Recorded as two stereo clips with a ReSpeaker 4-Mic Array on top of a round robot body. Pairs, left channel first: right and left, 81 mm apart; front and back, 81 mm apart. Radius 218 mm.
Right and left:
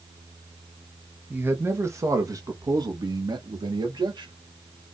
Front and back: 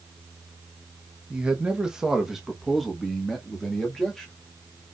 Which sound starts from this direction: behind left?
A man speaking, at 1.3 s.